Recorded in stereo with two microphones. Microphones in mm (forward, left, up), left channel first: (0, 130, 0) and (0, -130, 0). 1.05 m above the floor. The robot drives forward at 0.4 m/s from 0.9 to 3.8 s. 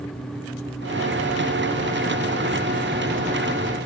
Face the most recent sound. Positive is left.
No sound to turn to.